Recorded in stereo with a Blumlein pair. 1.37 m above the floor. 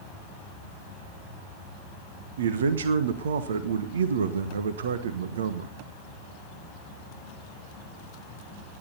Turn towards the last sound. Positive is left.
turn(degrees=-60)